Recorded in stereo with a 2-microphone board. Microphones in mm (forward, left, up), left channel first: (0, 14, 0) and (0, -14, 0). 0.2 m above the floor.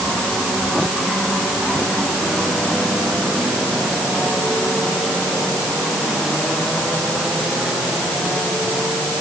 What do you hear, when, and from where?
Only background noise.